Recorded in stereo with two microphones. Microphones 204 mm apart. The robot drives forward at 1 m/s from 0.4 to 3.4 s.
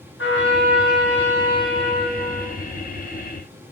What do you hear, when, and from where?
0.2 s a trumpet: 85° left, 6.5 m; by 2.5 s 75° left (ahead or behind), 7 m